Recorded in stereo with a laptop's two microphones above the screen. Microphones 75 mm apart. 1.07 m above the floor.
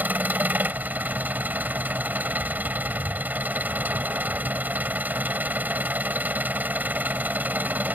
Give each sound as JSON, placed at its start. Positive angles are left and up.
{"t": 0.0, "sound": "an engine running", "side_deg": -25}